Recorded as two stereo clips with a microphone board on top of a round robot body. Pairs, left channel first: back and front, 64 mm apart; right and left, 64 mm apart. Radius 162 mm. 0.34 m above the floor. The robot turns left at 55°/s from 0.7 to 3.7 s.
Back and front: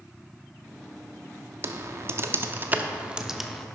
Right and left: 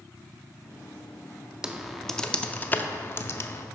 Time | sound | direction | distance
1.6 | typing on a keyboard | 15° left | 0.7 m